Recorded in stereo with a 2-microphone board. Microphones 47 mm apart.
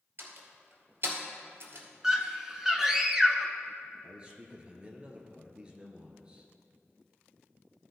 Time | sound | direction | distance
0.2 | a door slam | 55° right (ahead or behind) | 2.0 m
2.0 | a scream | 10° right (ahead or behind) | 1.1 m
4.0 | a man speaking | 20° right (ahead or behind) | 1.7 m